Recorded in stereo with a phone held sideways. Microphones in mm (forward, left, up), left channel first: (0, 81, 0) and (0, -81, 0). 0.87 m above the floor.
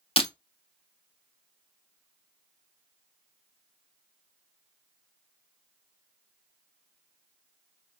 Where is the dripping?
I don't hear dripping.